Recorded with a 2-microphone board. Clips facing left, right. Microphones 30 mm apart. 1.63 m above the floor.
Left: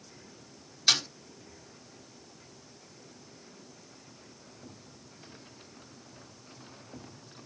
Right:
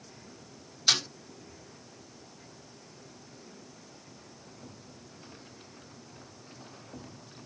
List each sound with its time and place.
0.9 s a snare drum: 10° left (ahead or behind), 2 m